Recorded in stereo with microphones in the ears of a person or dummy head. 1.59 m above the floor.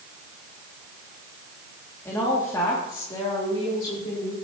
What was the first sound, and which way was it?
A woman speaking, 15° left (ahead or behind).